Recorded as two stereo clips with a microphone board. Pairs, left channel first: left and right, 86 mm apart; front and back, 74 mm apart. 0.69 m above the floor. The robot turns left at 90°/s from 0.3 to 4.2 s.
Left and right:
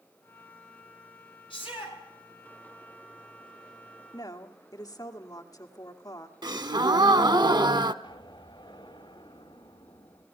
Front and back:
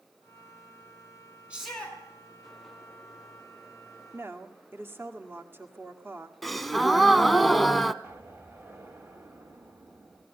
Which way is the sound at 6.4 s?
90° right.